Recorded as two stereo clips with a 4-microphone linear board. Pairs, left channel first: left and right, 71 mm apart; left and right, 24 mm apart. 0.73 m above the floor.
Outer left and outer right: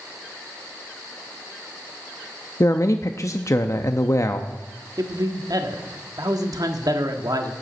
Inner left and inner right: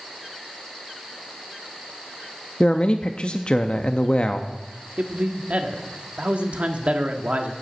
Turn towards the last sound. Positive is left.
turn(degrees=-60)  # may be behind; listen again after turning